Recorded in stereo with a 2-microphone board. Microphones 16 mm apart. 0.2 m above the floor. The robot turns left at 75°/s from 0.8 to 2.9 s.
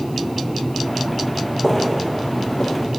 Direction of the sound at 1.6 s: 10° left (ahead or behind).